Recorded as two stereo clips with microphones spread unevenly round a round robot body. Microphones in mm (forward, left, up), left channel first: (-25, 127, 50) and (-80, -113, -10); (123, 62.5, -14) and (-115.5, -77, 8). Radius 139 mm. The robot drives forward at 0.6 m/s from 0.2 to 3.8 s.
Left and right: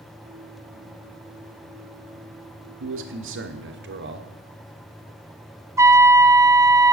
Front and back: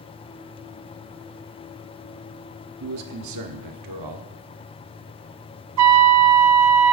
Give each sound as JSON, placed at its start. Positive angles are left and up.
{"t": 2.8, "sound": "a man speaking", "azimuth_deg": -110, "distance_m": 1.0}
{"t": 5.8, "sound": "a trumpet", "azimuth_deg": 175, "distance_m": 0.8}